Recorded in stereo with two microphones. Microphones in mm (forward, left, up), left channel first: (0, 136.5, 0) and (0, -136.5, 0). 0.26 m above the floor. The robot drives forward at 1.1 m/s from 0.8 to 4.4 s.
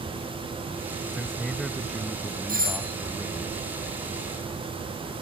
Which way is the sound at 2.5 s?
30° right (ahead or behind).